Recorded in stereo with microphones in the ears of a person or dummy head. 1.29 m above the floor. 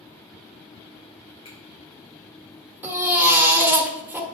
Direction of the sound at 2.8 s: 10° right (ahead or behind).